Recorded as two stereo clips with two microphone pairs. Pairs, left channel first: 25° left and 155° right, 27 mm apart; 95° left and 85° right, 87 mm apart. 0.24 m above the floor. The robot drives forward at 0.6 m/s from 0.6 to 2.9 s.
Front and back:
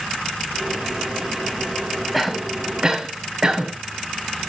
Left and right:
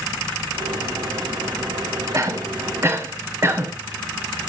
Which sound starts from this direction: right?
A cough, at 2.1 s.